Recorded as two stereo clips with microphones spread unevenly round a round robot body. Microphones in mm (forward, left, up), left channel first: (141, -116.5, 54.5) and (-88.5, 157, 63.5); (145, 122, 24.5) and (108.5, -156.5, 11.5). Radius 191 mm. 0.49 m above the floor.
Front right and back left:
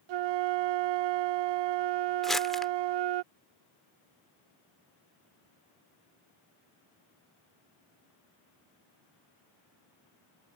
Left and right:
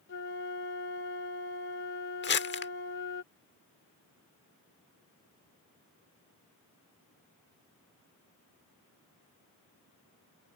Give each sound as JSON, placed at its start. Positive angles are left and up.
{"t": 0.1, "sound": "a flute", "azimuth_deg": 140}
{"t": 2.2, "sound": "crumpling", "azimuth_deg": 40}